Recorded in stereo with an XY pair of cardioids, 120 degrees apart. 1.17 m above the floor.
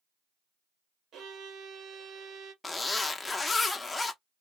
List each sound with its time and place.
1.1 s a violin: 60° right, 0.9 m
2.6 s a zipper: 20° left, 0.6 m